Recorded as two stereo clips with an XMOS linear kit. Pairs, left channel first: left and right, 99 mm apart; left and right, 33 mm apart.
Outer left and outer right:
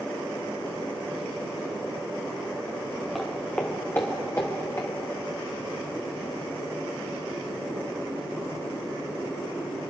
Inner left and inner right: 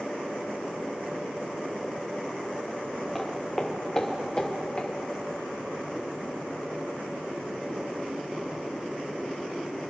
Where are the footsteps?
Centre (ahead or behind), 1.8 m; by 4.9 s 35° left (ahead or behind), 3.5 m.